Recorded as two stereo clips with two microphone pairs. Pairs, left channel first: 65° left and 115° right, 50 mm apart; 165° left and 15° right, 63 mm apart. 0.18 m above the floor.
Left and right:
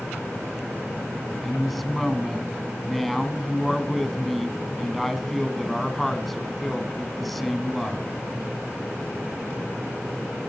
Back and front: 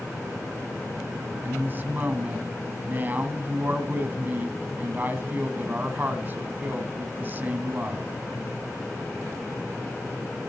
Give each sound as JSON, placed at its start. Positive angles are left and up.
{"t": 1.4, "sound": "a woman speaking", "azimuth_deg": -20, "distance_m": 1.2}